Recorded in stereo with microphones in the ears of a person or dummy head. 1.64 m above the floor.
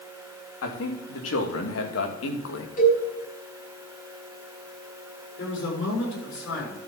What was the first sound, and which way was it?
A man speaking, 85° left.